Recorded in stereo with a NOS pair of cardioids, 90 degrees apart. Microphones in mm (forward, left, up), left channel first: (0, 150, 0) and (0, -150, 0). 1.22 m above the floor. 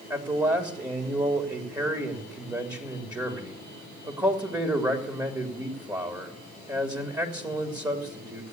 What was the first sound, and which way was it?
A man speaking, 15° right.